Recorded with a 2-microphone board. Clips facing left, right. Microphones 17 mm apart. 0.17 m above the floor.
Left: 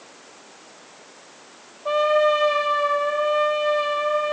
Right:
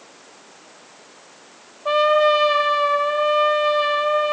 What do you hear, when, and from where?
1.9 s a trumpet: 10° right (ahead or behind), 4.5 m